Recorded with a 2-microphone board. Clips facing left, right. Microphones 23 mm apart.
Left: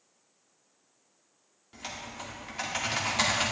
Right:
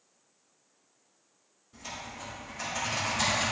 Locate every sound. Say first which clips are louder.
1.7 s typing on a keyboard: left 1 dB; 60° left (ahead or behind), 2 m